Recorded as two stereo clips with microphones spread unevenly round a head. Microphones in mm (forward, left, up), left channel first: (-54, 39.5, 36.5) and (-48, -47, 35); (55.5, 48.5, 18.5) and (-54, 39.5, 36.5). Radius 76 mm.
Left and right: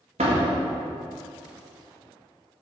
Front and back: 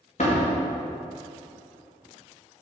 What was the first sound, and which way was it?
A door slam, 50° right.